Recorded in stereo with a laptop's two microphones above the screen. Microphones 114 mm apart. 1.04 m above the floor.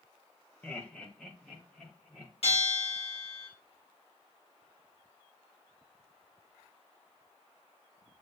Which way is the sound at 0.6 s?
15° left (ahead or behind).